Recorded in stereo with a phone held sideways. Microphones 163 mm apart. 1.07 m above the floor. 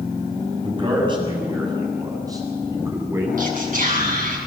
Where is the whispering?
60° right (ahead or behind), 7.5 m.